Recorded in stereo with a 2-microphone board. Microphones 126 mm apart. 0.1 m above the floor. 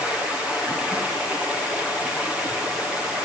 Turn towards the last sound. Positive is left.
turn(degrees=-5)  # may be behind; listen again after turning